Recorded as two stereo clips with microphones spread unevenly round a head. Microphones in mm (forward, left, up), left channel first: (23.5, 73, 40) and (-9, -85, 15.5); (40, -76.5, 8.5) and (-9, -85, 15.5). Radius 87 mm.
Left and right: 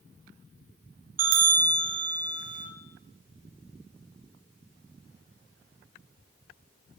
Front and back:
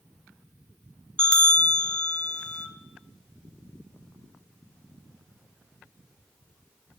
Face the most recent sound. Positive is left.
turn(degrees=-65)